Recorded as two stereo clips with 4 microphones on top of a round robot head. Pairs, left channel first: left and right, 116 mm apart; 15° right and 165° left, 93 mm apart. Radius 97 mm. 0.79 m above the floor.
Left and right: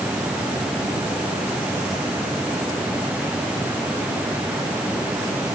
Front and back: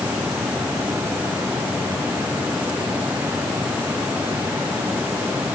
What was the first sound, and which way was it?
Only background noise.